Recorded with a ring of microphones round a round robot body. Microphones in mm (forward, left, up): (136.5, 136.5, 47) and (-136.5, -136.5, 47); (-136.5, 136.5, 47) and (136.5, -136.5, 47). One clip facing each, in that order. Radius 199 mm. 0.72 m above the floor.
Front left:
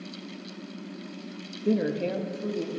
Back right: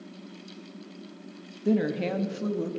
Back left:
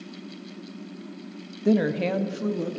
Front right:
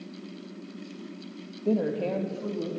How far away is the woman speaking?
About 0.9 m.